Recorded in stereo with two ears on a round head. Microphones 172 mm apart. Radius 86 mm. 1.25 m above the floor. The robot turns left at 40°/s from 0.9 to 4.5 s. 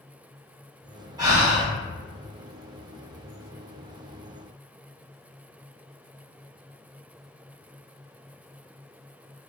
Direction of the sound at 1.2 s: 20° right (ahead or behind).